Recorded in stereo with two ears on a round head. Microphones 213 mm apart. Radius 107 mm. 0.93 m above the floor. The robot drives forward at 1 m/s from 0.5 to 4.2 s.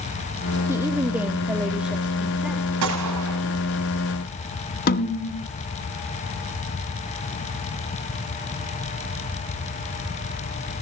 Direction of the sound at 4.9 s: 45° left (ahead or behind).